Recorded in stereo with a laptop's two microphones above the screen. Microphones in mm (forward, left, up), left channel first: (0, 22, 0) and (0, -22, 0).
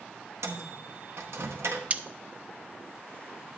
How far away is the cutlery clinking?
About 0.6 m.